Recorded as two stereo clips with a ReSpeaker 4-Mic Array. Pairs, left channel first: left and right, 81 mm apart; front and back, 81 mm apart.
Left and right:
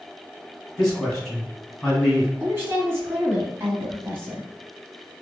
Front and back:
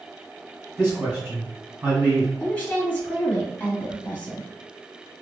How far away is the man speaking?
About 1.8 m.